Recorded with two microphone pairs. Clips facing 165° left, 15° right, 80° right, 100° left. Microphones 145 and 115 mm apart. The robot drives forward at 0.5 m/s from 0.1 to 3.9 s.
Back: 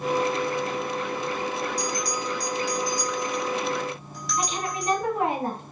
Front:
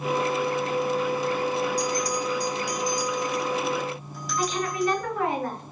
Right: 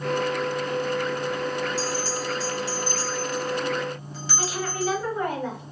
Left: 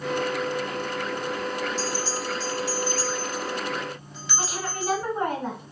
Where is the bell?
50° right, 1.9 m; by 5.0 s 100° right, 1.7 m.